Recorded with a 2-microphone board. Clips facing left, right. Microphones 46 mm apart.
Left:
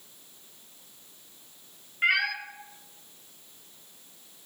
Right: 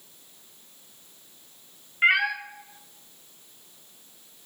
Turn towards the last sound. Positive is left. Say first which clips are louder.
# right 4 dB
turn(degrees=-25)  # may be behind; listen again after turning